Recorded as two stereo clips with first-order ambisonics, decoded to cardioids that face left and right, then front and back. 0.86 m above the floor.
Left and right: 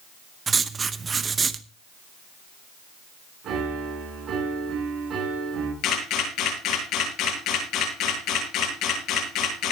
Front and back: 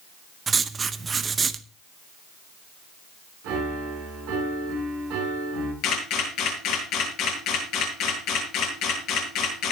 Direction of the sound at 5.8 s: 50° left.